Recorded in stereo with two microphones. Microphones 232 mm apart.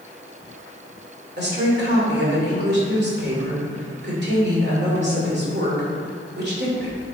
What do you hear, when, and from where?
1.4 s a woman speaking: 45° right (ahead or behind), 2.5 m